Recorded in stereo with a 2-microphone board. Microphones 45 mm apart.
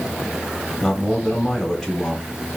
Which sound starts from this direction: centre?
A man speaking, at 0.8 s.